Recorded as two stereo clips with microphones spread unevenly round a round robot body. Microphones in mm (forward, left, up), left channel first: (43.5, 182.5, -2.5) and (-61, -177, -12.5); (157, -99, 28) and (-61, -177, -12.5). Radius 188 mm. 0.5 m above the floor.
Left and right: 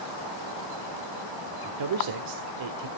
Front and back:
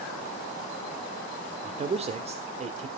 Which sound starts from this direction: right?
A man speaking, at 1.6 s.